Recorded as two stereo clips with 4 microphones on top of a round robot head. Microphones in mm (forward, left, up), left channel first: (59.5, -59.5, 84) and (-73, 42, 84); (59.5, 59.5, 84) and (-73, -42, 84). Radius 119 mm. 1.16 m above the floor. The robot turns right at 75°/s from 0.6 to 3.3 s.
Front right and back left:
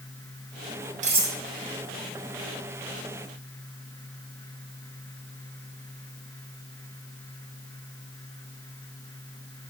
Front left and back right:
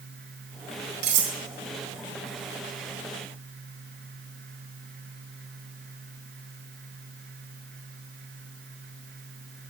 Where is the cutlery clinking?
170° right, 1.8 m; by 1.4 s 145° right, 1.8 m.